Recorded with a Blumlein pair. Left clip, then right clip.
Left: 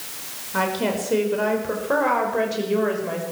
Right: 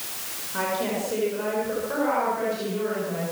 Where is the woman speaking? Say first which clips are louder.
Left 4 dB; 65° left, 5.5 m; by 3.2 s 55° left, 6.5 m.